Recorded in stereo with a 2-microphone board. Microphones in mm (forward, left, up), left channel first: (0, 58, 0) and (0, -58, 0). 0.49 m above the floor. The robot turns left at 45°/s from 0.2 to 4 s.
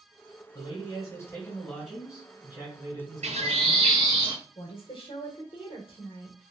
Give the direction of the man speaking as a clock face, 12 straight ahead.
10 o'clock.